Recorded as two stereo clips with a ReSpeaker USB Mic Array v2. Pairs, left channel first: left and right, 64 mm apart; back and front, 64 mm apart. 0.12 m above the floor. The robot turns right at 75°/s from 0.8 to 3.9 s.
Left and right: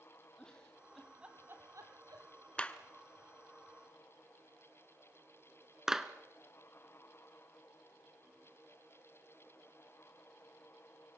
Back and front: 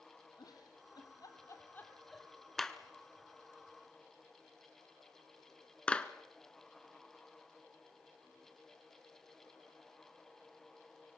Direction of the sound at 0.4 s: 165° left.